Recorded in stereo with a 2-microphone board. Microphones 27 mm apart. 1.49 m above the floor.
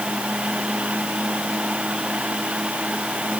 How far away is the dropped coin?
No dropped coin in this recording.